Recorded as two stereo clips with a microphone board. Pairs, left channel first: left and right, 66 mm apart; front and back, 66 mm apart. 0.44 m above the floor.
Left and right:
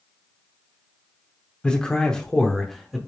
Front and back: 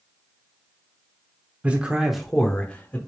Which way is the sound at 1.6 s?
145° left.